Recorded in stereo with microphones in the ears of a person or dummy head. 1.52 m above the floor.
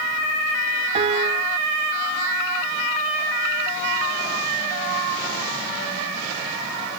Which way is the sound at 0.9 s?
35° right (ahead or behind).